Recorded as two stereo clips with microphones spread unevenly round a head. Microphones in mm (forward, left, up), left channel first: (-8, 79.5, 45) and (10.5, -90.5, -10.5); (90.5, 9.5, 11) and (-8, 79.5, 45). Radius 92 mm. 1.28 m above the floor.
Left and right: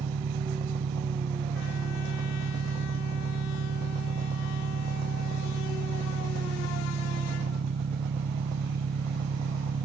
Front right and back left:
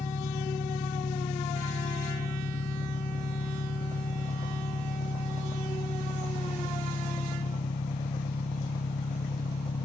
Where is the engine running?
50° right.